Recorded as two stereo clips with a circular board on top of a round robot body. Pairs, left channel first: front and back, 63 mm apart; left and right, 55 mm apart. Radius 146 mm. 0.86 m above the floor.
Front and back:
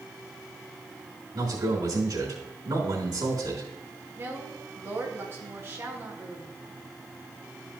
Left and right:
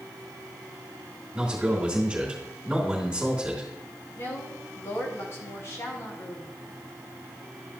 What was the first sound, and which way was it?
A man speaking, 160° right.